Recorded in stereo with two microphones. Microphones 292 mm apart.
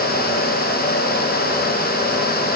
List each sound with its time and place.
Only background noise.